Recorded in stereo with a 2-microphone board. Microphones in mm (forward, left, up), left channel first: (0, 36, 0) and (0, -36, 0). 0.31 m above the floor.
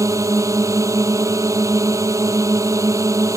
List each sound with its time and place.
0.0 s a drone: 45° right (ahead or behind)